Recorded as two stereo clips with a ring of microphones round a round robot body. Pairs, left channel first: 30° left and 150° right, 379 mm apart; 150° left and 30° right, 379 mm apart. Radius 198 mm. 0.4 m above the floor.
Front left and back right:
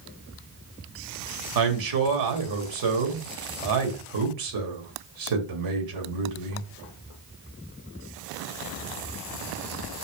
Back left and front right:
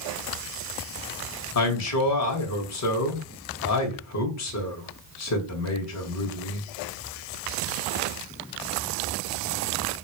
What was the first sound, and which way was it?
A man speaking, 170° right.